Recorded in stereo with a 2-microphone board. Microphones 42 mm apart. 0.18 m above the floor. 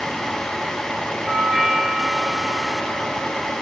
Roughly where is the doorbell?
Centre.